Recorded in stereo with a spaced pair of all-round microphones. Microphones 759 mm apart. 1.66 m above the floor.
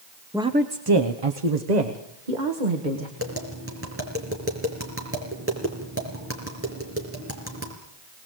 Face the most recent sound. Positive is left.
turn(degrees=-15)  # may be behind; listen again after turning